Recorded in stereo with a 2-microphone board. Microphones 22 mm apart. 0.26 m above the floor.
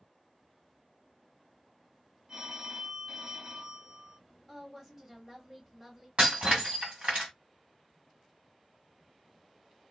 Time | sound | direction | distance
2.3 | a phone ringing | 40° right (ahead or behind) | 1.1 m
4.5 | a woman speaking | 15° right (ahead or behind) | 0.9 m
6.2 | breaking glass | 70° right (ahead or behind) | 1.8 m